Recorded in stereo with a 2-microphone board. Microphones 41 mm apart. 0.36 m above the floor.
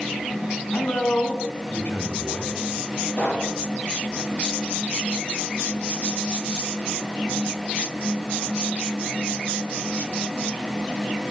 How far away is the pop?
About 6.5 m.